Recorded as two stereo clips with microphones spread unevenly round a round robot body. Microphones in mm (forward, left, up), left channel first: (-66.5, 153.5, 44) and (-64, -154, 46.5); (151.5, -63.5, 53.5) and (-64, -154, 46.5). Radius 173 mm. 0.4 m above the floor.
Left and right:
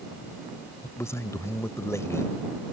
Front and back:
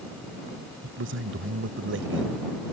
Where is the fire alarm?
I don't hear a fire alarm.